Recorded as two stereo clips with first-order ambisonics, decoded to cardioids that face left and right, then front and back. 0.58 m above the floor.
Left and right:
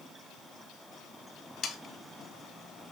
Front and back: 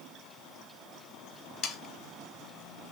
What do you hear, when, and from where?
1.6 s sawing: 35° left, 0.6 m